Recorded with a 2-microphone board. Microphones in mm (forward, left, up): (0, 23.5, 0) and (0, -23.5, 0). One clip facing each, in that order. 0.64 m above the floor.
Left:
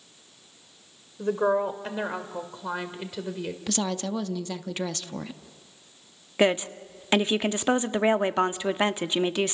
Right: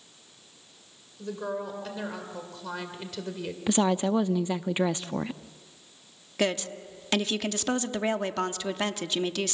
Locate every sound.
1.2 s a woman speaking: 45° left (ahead or behind), 2.5 m; by 3.6 s 5° left (ahead or behind), 2.5 m
3.7 s a woman speaking: 20° right (ahead or behind), 0.6 m
6.4 s a woman speaking: 25° left (ahead or behind), 0.8 m